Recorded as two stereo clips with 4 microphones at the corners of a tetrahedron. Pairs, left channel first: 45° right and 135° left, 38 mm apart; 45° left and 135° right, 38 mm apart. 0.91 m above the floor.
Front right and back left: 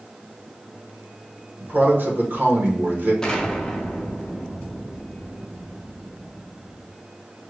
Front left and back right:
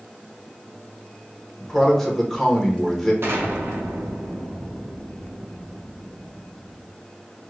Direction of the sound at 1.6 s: 130° left.